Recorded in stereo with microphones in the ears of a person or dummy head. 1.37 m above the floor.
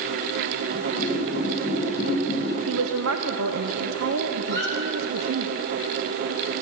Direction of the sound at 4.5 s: 70° right (ahead or behind).